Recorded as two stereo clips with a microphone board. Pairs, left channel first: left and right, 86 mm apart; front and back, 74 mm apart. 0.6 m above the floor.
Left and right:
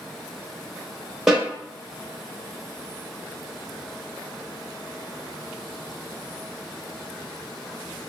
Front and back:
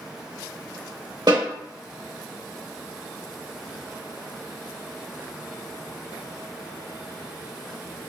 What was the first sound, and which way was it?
A snare drum, 175° right.